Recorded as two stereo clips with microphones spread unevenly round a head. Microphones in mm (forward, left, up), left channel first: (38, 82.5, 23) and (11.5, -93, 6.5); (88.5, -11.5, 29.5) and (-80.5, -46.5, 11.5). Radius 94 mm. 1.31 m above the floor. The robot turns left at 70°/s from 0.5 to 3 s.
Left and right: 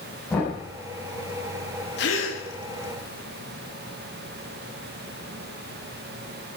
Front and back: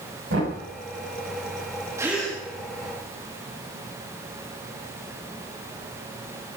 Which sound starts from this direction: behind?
Knocking, at 0.3 s.